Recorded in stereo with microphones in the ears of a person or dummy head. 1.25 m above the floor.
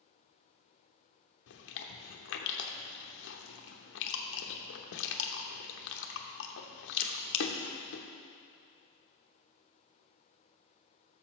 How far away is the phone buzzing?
No phone buzzing in this recording.